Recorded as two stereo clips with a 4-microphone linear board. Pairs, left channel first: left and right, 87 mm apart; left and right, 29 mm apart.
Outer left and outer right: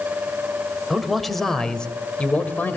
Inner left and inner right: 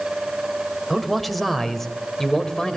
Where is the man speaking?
5° right (ahead or behind), 1.6 m; by 2.8 s 20° left (ahead or behind), 1.5 m.